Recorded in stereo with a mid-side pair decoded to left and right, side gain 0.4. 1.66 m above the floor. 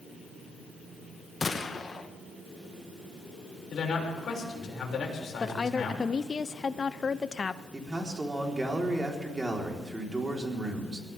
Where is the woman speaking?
40° left, 0.7 m.